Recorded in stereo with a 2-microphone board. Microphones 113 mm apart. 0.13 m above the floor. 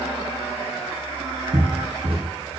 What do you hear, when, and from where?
1.5 s footsteps: 55° right (ahead or behind), 2 m